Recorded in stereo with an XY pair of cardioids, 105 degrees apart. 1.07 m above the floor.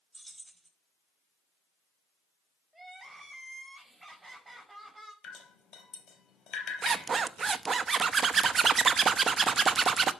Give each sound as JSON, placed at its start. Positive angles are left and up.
{"t": 0.1, "sound": "keys jangling", "azimuth_deg": -15, "distance_m": 5.0}
{"t": 2.7, "sound": "crying", "azimuth_deg": -15, "distance_m": 4.5}
{"t": 5.2, "sound": "dripping", "azimuth_deg": 60, "distance_m": 4.0}
{"t": 6.8, "sound": "a zipper", "azimuth_deg": -40, "distance_m": 0.7}